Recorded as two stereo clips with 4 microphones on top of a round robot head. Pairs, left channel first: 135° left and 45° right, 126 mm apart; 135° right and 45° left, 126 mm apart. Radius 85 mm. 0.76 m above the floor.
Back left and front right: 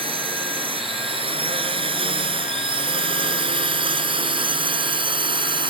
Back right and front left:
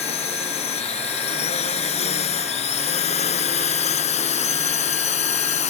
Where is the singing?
No singing in this recording.